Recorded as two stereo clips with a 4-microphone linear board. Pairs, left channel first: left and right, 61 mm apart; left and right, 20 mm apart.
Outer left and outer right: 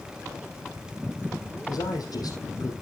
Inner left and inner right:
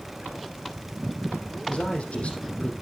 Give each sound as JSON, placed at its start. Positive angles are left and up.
{"t": 1.7, "sound": "a man speaking", "side_deg": 70, "distance_m": 4.0}